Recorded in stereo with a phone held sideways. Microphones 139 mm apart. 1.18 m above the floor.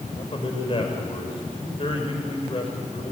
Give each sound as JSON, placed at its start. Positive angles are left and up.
{"t": 0.1, "sound": "a man speaking", "side_deg": 45, "distance_m": 5.5}